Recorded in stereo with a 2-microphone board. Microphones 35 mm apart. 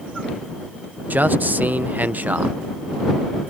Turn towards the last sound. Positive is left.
turn(degrees=-60)  # may be behind; listen again after turning